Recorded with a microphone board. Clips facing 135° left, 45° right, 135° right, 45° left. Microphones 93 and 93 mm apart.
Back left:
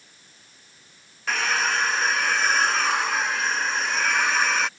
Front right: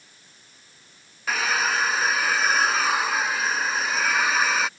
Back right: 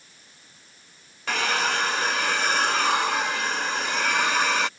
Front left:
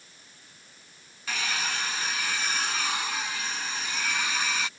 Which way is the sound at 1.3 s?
130° right.